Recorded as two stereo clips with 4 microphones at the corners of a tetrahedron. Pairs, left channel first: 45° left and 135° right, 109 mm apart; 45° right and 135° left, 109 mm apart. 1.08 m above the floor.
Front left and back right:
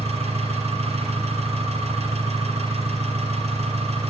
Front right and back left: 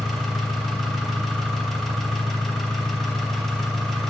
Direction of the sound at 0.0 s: 130° right.